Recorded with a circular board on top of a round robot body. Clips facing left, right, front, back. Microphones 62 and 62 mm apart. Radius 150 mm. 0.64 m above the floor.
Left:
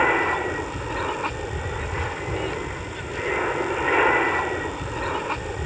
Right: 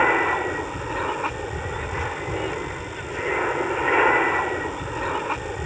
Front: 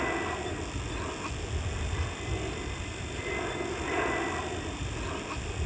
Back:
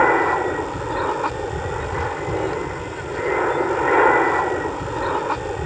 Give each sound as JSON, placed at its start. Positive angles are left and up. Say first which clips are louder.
{"t": 0.0, "sound": "an aircraft", "louder": "right 1 dB, back 15 dB", "azimuth_deg": -175}